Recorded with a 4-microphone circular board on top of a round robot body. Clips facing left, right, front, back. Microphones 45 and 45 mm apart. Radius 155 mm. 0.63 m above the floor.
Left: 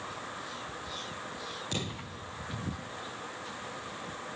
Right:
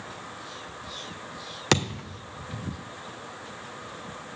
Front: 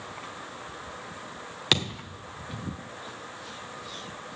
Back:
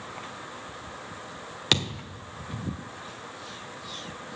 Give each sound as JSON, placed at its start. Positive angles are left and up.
{"t": 1.7, "sound": "a thud", "azimuth_deg": -90, "distance_m": 1.3}